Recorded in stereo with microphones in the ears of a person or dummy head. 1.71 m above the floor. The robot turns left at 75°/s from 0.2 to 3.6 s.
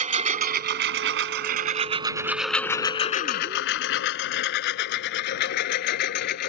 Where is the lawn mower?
40° right (ahead or behind); by 6.5 s 60° left (ahead or behind).